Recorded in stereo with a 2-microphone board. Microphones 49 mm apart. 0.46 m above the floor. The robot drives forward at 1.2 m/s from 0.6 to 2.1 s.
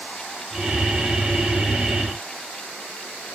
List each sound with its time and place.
Only background noise.